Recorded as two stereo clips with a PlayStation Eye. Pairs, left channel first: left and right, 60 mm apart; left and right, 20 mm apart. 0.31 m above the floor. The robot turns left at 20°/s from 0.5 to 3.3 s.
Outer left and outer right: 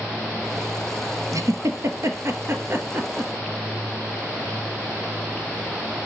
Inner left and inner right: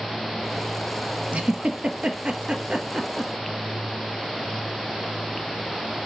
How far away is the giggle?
About 1.2 m.